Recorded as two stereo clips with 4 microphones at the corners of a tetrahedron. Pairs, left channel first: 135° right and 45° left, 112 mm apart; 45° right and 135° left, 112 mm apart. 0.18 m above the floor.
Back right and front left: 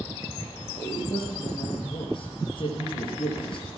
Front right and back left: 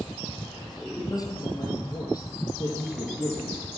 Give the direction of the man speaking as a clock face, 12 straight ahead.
3 o'clock.